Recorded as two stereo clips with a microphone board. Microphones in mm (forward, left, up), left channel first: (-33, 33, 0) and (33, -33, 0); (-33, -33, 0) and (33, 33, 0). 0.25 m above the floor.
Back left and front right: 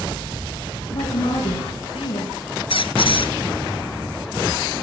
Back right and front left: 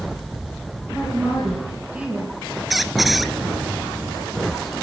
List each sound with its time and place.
0.9 s a woman speaking: 125° left, 8 m
2.7 s a squeak: 135° left, 1.3 m